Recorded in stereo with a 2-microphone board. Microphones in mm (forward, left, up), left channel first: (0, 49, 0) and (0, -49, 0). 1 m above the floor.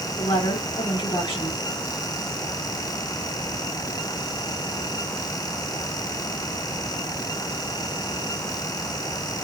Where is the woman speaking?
65° left (ahead or behind), 3 m.